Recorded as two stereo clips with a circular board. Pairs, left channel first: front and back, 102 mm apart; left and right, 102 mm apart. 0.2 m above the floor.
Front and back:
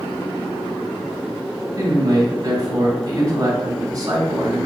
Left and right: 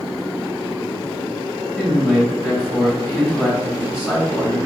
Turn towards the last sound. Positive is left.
turn(degrees=-170)